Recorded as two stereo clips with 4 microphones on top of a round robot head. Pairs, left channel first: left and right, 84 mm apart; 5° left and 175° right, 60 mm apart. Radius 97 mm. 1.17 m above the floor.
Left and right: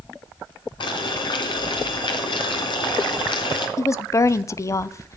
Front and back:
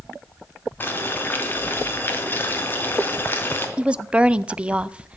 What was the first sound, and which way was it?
Boiling, 60° left.